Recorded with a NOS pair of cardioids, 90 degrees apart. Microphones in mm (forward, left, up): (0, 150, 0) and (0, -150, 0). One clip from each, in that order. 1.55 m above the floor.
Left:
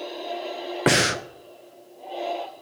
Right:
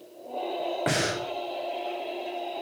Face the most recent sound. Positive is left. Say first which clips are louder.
# left 9 dB
turn(degrees=55)